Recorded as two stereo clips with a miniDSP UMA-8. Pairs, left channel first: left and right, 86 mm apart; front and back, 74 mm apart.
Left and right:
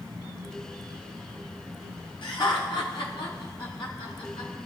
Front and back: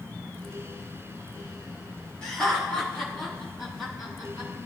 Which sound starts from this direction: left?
Laughter, at 2.2 s.